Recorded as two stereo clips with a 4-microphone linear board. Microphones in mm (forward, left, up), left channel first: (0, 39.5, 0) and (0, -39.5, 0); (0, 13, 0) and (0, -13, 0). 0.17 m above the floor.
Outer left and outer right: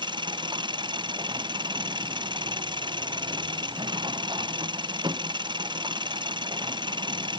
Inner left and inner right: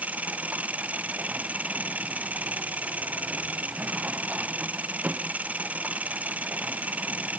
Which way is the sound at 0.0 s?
75° right (ahead or behind).